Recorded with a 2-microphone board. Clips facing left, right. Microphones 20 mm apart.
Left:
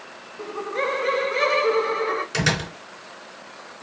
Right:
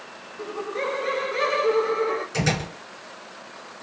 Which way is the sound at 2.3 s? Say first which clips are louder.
Left 2 dB; 40° left (ahead or behind).